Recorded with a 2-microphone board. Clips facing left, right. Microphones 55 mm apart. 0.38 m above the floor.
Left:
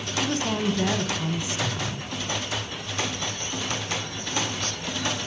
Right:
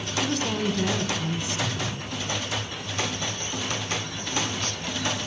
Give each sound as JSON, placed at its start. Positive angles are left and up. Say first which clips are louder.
{"t": 0.2, "sound": "a woman speaking", "louder": "left 1 dB", "side_deg": 15, "distance_m": 1.0}